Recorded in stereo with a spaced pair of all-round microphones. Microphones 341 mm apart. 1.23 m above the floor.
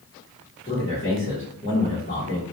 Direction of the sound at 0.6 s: 40° left (ahead or behind).